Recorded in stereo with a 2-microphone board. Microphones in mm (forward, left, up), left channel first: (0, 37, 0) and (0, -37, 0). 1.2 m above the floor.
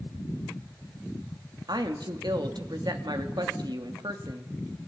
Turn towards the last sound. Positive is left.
turn(degrees=-70)  # may be behind; listen again after turning